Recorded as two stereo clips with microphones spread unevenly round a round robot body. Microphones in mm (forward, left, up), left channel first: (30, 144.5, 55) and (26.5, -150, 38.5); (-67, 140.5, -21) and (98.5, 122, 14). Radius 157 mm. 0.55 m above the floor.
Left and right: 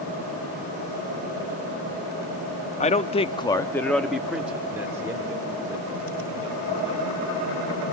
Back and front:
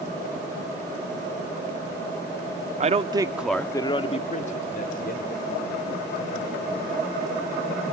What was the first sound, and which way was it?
A man speaking, 30° left.